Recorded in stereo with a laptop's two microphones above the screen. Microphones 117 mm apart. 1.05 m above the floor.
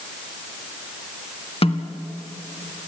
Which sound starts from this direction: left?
A snare drum, at 1.6 s.